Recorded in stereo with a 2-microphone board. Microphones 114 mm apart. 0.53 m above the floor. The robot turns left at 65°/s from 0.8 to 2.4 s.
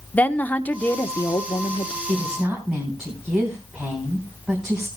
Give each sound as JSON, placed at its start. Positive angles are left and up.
{"t": 0.1, "sound": "a woman speaking", "azimuth_deg": 160, "distance_m": 0.9}
{"t": 2.1, "sound": "a woman speaking", "side_deg": -25, "distance_m": 3.5}